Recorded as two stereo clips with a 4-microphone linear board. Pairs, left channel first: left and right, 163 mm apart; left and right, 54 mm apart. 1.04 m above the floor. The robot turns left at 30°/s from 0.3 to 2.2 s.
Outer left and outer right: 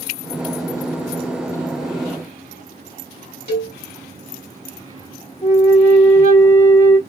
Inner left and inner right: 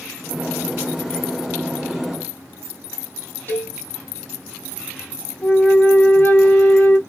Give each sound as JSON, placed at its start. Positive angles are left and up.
{"t": 3.5, "sound": "a cowbell", "side_deg": 40, "distance_m": 1.7}
{"t": 5.4, "sound": "a flute", "side_deg": 45, "distance_m": 1.5}